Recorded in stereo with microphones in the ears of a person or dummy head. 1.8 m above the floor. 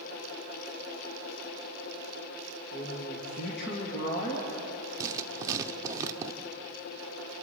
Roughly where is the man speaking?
Left.